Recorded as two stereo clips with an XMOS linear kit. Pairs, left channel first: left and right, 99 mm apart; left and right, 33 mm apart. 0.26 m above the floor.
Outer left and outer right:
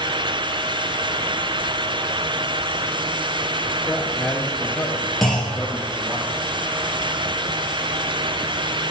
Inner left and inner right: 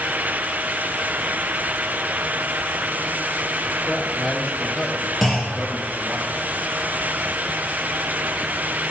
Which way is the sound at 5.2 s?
Centre (ahead or behind).